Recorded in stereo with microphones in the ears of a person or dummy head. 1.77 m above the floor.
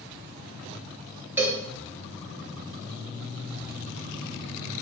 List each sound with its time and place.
1.4 s a cowbell: 10° right (ahead or behind), 1.3 m